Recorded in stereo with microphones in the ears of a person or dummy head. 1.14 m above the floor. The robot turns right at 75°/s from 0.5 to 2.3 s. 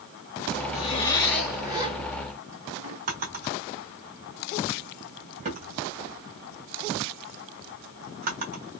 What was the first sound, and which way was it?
A zipper, 125° left.